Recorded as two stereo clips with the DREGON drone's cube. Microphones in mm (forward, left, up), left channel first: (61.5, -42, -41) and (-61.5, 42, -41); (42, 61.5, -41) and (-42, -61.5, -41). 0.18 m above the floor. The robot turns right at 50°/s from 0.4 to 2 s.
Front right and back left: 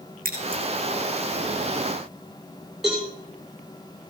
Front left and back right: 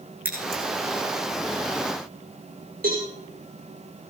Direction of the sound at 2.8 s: 130° right.